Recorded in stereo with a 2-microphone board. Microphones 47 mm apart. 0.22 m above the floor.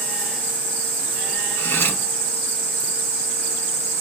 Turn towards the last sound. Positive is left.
turn(degrees=55)  # may be behind; listen again after turning